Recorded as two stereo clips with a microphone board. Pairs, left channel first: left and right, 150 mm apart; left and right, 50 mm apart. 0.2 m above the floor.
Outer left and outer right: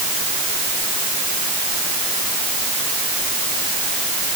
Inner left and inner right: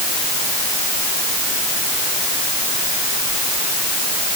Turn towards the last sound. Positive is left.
No sound to turn to.